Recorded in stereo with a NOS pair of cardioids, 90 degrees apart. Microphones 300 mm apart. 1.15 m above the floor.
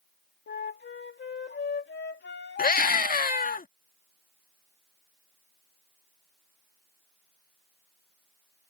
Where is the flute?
35° left.